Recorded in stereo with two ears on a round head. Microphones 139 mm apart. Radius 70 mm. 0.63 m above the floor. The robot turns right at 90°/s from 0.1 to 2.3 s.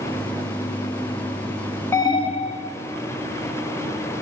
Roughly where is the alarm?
Ahead.